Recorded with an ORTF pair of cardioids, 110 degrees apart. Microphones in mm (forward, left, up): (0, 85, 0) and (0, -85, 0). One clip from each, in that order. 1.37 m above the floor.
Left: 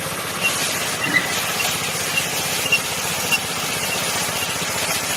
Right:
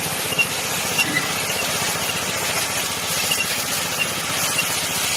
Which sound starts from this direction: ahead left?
A guitar, at 1.0 s.